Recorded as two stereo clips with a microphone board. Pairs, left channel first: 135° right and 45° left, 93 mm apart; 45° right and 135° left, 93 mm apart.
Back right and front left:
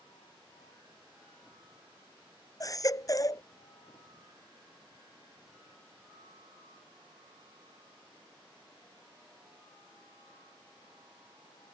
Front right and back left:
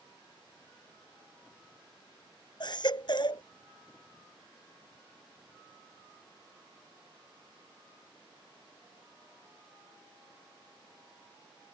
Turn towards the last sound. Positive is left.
turn(degrees=-80)